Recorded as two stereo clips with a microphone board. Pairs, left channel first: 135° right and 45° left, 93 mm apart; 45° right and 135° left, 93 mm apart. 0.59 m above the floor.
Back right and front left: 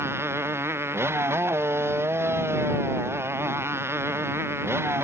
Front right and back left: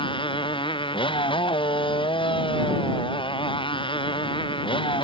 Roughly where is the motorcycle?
Ahead.